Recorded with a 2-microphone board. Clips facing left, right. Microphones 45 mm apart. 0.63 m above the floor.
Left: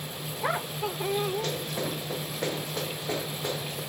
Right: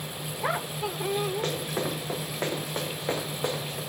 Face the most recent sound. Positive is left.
turn(degrees=-75)  # may be behind; listen again after turning